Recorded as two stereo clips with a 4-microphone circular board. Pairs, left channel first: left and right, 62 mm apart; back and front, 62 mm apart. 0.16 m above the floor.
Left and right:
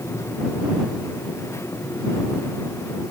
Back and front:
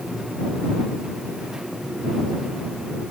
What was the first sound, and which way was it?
Only background noise.